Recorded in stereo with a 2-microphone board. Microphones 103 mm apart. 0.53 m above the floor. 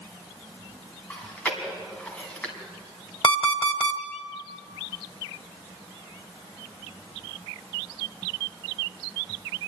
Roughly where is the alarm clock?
Left.